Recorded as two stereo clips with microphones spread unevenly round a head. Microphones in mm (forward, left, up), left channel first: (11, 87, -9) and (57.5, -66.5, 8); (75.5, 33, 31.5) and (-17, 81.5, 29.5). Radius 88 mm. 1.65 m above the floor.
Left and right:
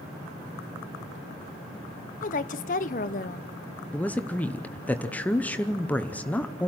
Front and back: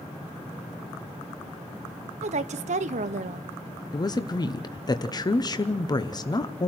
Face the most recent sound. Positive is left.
turn(degrees=25)